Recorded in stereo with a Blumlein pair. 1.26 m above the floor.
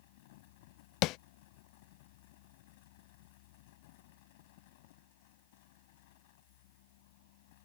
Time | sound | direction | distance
0.0 | a fan | 50° left | ?
1.0 | tapping | 40° left | ?